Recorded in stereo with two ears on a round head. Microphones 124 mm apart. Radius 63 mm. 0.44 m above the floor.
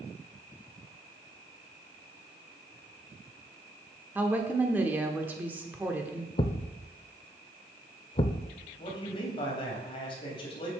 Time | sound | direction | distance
4.2 | a woman speaking | 15° right (ahead or behind) | 1.0 m
6.4 | a thud | 35° left (ahead or behind) | 0.5 m
8.8 | a man speaking | 40° left (ahead or behind) | 3 m